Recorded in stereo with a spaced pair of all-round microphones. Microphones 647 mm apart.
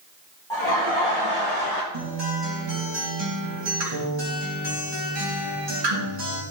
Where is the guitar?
40° right (ahead or behind), 3 m.